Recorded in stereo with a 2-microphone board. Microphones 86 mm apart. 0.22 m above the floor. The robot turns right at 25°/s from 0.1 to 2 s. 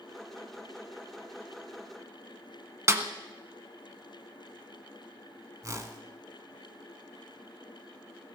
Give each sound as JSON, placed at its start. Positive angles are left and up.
{"t": 2.9, "sound": "a snare drum", "side_deg": -30, "distance_m": 1.1}
{"t": 5.6, "sound": "a whoosh", "side_deg": -40, "distance_m": 1.3}